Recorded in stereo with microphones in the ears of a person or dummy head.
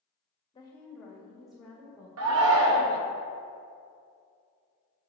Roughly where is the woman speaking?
Centre.